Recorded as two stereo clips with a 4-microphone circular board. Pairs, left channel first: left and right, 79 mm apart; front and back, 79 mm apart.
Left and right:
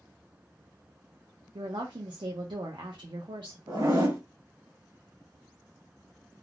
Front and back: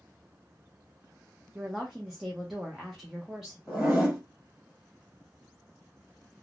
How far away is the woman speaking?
About 0.5 m.